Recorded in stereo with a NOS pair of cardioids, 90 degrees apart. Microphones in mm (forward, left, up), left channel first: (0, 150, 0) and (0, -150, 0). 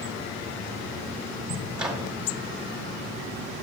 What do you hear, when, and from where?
1.8 s a microwave: 5° right, 2 m